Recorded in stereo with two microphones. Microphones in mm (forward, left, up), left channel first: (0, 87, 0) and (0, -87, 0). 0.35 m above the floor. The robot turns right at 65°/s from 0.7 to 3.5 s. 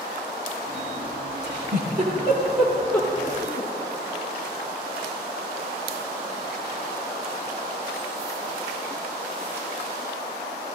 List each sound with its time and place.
1.4 s a giggle: 85° right, 9 m; by 3.7 s 50° left (ahead or behind), 9 m